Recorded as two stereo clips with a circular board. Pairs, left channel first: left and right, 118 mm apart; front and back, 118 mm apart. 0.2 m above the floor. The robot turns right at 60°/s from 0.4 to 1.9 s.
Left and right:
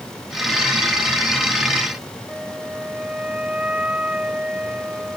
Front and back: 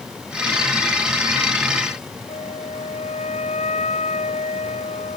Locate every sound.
2.3 s a flute: 10° right